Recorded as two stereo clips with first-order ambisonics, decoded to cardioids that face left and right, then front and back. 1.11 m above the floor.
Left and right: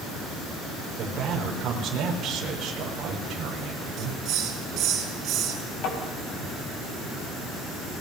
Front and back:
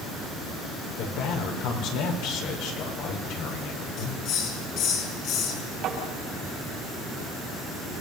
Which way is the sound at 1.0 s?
30° right.